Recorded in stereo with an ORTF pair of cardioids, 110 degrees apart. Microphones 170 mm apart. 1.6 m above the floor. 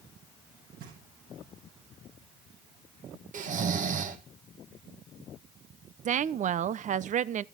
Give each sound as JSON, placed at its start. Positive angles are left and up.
{"t": 0.8, "sound": "knocking", "azimuth_deg": -60, "distance_m": 10.0}
{"t": 3.3, "sound": "snoring", "azimuth_deg": -50, "distance_m": 2.0}
{"t": 6.0, "sound": "a woman speaking", "azimuth_deg": -45, "distance_m": 0.8}